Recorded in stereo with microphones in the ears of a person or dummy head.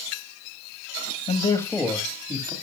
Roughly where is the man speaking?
Left.